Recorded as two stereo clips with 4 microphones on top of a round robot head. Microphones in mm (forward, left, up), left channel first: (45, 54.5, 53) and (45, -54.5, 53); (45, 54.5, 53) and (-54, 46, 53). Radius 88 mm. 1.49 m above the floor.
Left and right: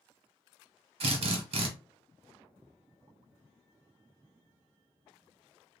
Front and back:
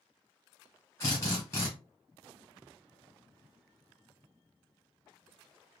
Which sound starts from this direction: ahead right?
A drill, at 1.0 s.